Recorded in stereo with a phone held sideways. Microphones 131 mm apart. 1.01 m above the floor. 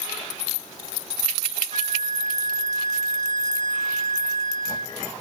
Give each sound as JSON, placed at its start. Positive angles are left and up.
{"t": 1.7, "sound": "a flute", "side_deg": 35, "distance_m": 0.7}